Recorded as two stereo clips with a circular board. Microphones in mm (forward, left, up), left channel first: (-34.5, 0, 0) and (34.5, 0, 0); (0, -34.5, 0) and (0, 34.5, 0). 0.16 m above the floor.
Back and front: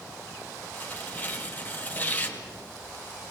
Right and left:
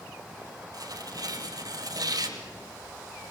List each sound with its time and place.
0.7 s tearing paper: 115° left, 1.9 m